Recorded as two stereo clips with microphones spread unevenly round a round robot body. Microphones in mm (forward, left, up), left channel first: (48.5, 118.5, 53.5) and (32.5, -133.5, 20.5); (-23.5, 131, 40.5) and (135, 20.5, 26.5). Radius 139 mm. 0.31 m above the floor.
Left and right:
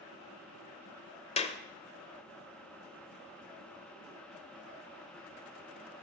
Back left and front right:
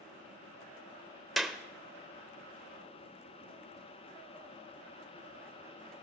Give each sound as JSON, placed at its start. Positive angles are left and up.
{"t": 1.4, "sound": "a clap", "azimuth_deg": 45, "distance_m": 0.8}